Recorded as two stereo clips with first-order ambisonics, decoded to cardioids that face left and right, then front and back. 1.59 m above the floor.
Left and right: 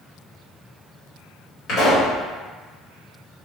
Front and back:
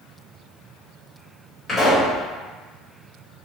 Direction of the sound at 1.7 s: 70° left.